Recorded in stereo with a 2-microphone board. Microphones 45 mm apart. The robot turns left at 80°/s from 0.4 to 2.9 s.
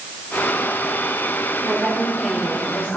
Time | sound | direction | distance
1.6 | a woman speaking | 130° right | 1.8 m